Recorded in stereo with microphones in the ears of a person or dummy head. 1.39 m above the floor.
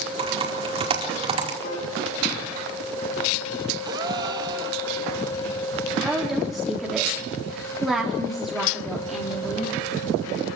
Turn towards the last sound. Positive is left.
turn(degrees=0)  # may be behind; listen again after turning